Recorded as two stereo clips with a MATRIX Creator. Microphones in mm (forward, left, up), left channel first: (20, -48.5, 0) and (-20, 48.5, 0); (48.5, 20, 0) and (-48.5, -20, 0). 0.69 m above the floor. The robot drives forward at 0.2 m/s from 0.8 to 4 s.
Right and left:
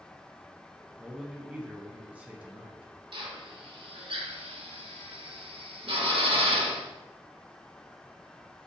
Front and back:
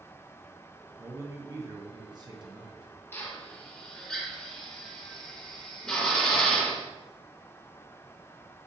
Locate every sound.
1.0 s a man speaking: 170° right, 0.6 m; by 2.9 s 175° right, 0.8 m
3.1 s a drill: 90° left, 0.6 m; by 6.8 s 105° left, 0.6 m